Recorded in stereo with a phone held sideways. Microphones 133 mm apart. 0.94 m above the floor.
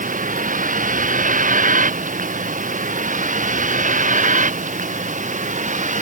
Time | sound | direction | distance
0.0 | a vehicle | 85° right | ?